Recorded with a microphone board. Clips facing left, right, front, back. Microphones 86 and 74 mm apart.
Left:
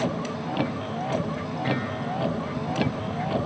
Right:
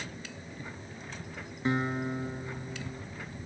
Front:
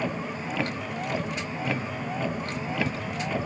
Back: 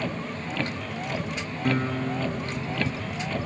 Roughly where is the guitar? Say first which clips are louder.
Even, back 7 dB; behind right.